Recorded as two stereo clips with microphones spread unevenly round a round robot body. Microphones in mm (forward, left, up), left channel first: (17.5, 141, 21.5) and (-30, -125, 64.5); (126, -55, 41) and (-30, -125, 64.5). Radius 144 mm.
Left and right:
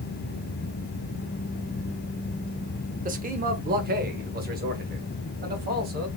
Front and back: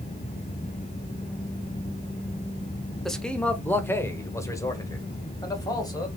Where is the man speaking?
50° right, 1.0 m; by 6.1 s 40° right, 2.5 m.